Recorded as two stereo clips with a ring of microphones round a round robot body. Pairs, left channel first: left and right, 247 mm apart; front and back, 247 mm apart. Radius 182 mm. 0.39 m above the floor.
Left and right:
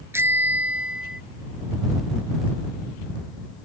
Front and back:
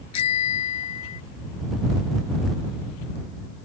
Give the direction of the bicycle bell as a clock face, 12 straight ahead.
12 o'clock.